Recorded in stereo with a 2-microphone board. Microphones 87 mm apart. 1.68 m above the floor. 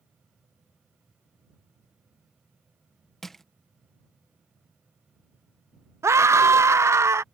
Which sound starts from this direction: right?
A scream, at 6.0 s.